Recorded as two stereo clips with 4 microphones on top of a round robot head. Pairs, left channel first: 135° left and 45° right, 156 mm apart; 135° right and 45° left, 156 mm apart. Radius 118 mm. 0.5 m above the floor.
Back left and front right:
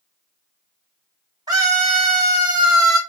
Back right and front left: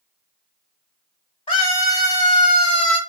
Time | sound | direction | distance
1.5 | a scream | 95° right | 1.8 m